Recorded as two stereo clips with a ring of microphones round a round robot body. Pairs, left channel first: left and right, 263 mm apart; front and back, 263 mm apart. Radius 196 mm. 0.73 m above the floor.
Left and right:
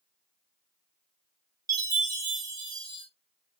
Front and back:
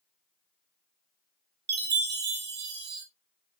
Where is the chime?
160° right, 1.3 m.